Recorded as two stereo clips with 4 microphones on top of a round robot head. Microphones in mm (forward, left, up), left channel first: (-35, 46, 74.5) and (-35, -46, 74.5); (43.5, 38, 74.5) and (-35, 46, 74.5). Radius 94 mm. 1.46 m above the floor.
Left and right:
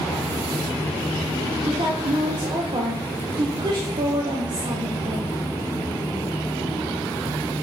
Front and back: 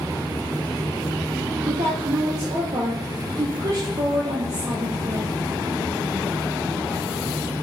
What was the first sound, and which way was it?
A woman speaking, 130° right.